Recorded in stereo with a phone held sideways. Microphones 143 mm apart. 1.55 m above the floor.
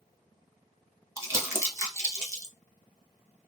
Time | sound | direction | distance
1.2 | crumpling | 20° right (ahead or behind) | 0.8 m